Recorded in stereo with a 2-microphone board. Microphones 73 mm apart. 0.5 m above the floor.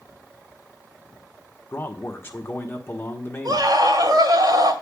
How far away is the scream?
About 2 m.